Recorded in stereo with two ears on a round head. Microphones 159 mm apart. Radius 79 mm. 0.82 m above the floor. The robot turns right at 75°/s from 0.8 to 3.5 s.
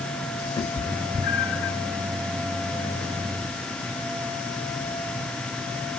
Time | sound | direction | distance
0.6 | a cat meowing | 20° left (ahead or behind) | 1.2 m